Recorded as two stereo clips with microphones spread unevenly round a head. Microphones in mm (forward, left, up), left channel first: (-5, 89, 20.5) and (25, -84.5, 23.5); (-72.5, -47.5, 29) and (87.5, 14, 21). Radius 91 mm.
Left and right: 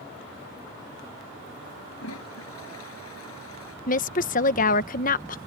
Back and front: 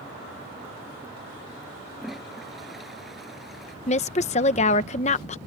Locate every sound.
2.0 s a toilet flushing: 110° left
3.9 s a woman speaking: 145° left